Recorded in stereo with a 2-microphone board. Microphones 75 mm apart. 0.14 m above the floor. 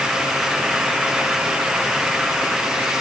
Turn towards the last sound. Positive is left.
No sound to turn to.